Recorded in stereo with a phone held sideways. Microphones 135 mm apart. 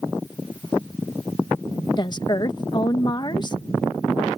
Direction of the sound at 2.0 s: 35° left (ahead or behind).